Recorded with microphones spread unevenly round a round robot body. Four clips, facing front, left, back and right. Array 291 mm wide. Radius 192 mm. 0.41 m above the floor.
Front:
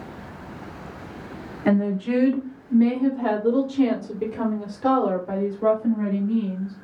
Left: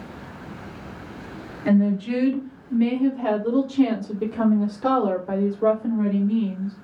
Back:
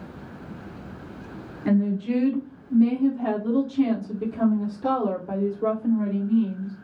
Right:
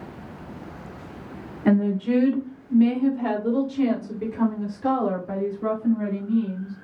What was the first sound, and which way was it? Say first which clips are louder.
A woman speaking: even, front 1 dB; 45° right.